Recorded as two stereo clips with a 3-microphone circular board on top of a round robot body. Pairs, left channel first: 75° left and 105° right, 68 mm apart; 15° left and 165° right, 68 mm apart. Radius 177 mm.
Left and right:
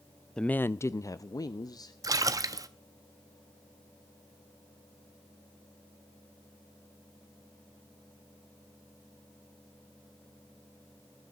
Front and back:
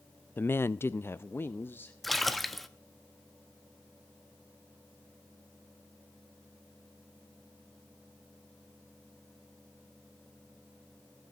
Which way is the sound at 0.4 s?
5° left.